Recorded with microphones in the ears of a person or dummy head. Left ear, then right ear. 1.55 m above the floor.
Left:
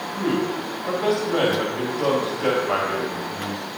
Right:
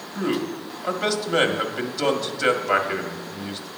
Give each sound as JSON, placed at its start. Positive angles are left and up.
{"t": 0.1, "sound": "a man speaking", "side_deg": -45, "distance_m": 1.7}